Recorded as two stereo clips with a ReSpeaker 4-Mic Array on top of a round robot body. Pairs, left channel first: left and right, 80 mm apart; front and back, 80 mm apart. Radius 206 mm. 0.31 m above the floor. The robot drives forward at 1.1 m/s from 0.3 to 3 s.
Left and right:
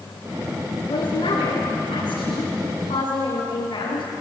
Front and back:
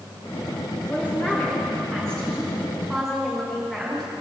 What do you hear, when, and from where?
0.9 s a woman speaking: 75° left, 6.5 m; by 4.1 s 95° left, 6.5 m